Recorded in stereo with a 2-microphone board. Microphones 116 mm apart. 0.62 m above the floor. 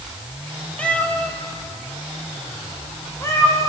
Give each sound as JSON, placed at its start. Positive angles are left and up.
{"t": 0.8, "sound": "a cat meowing", "side_deg": 10, "distance_m": 2.0}